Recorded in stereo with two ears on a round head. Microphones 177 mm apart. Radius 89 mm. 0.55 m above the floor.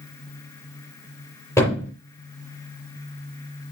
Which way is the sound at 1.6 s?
15° left (ahead or behind).